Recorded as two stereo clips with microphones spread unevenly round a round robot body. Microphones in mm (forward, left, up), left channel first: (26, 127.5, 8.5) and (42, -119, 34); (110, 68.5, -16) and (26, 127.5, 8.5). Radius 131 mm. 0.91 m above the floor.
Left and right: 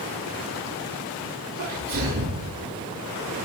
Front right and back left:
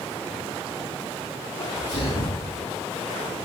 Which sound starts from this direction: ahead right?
A sneeze, at 1.6 s.